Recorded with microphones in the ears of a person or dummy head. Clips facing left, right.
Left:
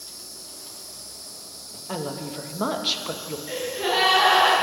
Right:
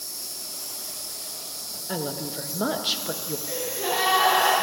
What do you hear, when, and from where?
0.0 s an insect: 70° right (ahead or behind), 0.9 m
1.9 s a woman speaking: 5° right (ahead or behind), 1.0 m
3.5 s a gasp: 10° left (ahead or behind), 4.5 m